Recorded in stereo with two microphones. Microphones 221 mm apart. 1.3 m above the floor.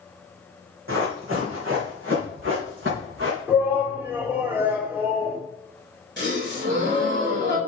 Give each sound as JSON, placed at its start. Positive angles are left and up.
{"t": 0.9, "sound": "running footsteps", "side_deg": -70, "distance_m": 4.0}
{"t": 3.5, "sound": "a shout", "side_deg": -10, "distance_m": 3.0}
{"t": 6.2, "sound": "a gasp", "side_deg": -55, "distance_m": 4.0}